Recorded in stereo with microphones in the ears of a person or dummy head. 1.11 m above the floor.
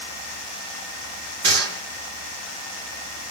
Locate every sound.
1.4 s a gunshot: 75° right (ahead or behind), 3.5 m